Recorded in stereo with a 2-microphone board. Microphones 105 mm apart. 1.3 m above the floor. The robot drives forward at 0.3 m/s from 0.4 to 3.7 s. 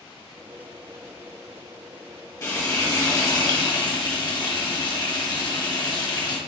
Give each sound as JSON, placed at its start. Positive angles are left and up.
{"t": 2.4, "sound": "frying", "side_deg": 30, "distance_m": 1.2}